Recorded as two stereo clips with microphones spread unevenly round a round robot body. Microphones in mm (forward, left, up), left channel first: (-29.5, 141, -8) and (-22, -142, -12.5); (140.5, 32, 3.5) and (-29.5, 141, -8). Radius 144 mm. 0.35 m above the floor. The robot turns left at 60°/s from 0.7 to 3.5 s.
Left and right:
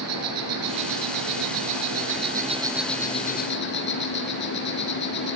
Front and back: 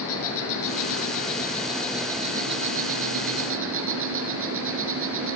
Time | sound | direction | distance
0.0 | an insect | 50° right | 4 m